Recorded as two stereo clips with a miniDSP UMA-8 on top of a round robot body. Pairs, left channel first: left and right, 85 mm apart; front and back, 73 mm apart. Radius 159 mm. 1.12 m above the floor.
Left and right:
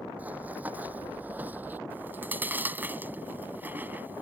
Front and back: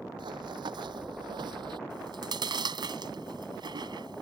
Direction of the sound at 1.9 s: 160° right.